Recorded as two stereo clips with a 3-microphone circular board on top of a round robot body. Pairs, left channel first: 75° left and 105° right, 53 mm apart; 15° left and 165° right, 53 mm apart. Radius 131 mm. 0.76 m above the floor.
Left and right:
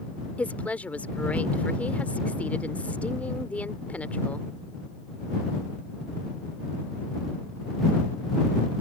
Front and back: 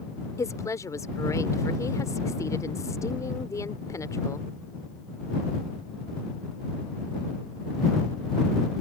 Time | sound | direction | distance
0.4 | a woman speaking | 10° left | ?